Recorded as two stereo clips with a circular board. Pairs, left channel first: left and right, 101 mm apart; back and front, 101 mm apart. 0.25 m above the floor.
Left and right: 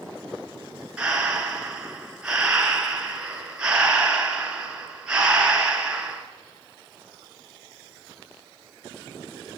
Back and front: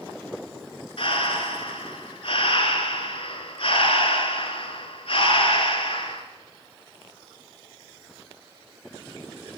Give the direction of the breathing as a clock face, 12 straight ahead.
6 o'clock.